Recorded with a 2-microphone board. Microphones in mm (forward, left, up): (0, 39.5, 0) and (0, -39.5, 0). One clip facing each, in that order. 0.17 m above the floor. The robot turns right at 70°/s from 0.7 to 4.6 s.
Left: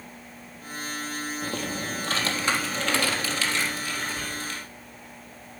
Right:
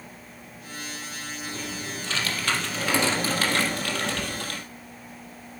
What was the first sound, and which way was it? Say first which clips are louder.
Typing on a keyboard: left 2 dB; 90° left.